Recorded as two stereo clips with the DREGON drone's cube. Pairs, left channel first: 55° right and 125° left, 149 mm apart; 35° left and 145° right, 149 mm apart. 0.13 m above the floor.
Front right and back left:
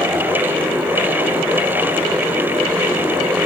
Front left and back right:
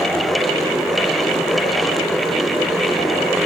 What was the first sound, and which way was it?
Only background noise.